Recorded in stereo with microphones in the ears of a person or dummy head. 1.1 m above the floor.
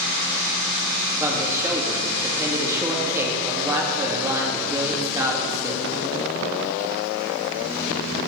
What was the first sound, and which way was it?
A man speaking, 15° right (ahead or behind).